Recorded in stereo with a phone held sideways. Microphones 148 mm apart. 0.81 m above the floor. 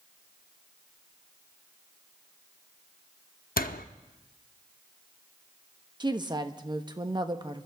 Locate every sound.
3.6 s a door slam: 80° left, 0.8 m
6.0 s a woman speaking: 30° right (ahead or behind), 0.9 m